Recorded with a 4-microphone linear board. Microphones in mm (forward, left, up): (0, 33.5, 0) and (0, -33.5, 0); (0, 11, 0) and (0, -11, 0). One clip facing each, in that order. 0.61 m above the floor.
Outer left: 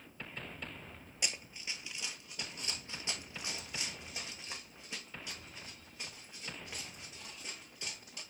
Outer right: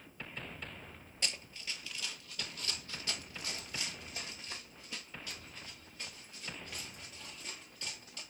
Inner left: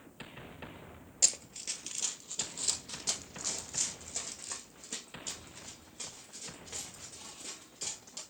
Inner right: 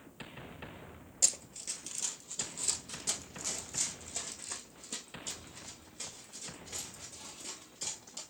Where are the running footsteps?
15° left (ahead or behind), 0.6 m; by 8.2 s 20° left (ahead or behind), 4 m.